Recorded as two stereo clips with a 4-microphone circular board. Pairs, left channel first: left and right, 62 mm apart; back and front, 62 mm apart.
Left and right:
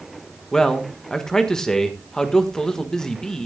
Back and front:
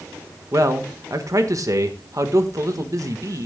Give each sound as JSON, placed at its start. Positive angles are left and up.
{"t": 0.5, "sound": "a man speaking", "azimuth_deg": 10, "distance_m": 1.4}